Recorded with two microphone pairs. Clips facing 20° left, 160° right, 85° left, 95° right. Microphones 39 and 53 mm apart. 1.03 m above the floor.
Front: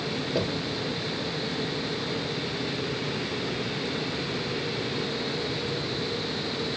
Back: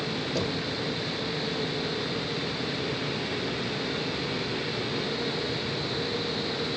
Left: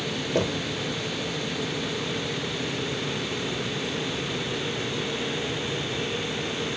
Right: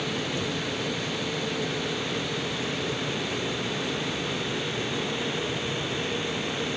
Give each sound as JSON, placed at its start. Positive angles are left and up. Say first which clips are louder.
{"t": 0.3, "sound": "knocking", "louder": "front 2 dB, left 4 dB", "azimuth_deg": 95}